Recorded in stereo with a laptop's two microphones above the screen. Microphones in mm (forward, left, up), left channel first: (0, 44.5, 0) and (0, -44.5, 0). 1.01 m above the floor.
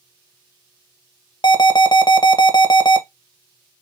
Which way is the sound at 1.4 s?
50° left (ahead or behind).